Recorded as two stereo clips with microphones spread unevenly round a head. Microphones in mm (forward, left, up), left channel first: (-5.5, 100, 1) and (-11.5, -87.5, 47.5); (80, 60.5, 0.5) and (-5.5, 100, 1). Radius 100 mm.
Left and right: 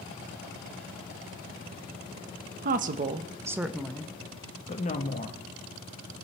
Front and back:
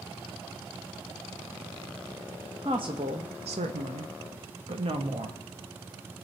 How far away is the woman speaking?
About 0.8 m.